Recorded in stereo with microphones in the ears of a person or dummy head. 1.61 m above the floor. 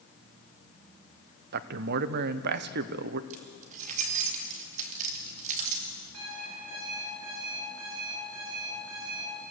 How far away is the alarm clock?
About 7.5 m.